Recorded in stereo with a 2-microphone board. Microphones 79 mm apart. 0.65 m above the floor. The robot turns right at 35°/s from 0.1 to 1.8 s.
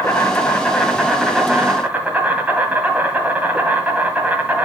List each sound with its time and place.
0.0 s an insect: 140° left, 2 m; by 4.7 s 160° right, 2 m